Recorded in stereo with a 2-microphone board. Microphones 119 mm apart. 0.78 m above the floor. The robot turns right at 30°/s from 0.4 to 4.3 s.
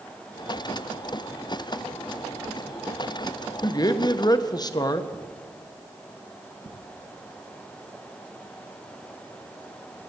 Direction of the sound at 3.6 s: 35° left (ahead or behind).